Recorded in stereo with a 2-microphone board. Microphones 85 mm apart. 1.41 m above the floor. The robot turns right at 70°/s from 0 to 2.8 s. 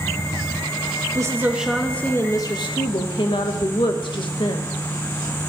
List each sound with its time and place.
1.1 s a woman speaking: 40° right, 1.4 m; by 4.7 s 75° left, 1.4 m